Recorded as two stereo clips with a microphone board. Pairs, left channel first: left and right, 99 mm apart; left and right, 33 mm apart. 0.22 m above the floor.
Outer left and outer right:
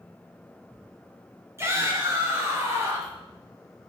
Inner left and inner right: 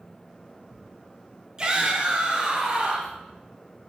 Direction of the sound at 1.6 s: 25° right (ahead or behind).